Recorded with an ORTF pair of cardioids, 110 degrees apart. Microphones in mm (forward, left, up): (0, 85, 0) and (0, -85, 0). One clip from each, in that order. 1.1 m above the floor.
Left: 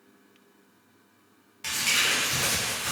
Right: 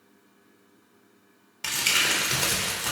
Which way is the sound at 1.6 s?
30° right.